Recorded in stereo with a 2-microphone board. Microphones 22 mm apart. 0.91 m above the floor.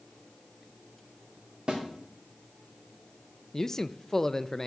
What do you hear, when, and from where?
1.7 s a snare drum: 45° right (ahead or behind), 2.5 m
3.5 s a man speaking: 15° left (ahead or behind), 0.5 m